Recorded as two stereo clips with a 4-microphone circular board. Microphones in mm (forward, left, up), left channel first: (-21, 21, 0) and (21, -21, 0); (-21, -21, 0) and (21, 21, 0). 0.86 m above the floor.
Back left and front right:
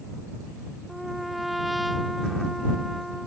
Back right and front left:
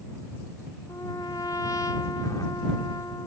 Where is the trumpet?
135° right.